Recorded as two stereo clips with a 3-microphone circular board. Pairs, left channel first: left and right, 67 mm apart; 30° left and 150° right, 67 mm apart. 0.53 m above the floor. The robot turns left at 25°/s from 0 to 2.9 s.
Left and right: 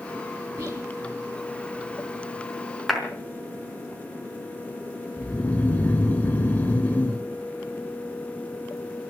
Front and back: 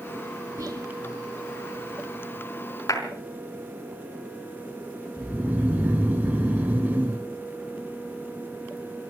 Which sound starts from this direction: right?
Whispering, at 0.6 s.